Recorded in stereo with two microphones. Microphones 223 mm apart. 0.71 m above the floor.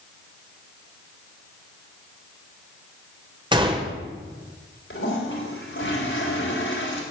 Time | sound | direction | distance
3.5 | a gunshot | 20° right (ahead or behind) | 2.0 m
4.9 | a toilet flushing | 65° left (ahead or behind) | 3.5 m